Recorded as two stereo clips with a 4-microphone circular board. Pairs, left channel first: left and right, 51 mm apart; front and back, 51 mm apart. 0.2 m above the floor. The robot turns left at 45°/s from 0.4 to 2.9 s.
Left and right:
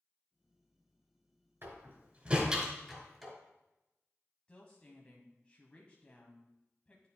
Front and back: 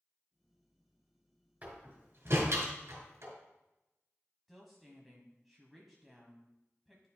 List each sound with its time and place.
1.6 s a door slam: 125° right, 2.5 m; by 3.3 s straight behind, 2.5 m
4.5 s a woman speaking: 85° left, 1.0 m